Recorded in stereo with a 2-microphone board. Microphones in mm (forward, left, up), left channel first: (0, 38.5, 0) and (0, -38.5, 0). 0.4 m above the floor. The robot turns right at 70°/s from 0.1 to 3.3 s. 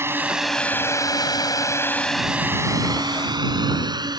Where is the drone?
35° right (ahead or behind); by 4.2 s 65° right (ahead or behind).